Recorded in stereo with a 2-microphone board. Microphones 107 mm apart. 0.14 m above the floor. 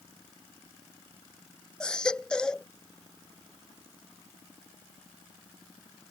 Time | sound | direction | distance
1.8 | a baby crying | 10° left (ahead or behind) | ?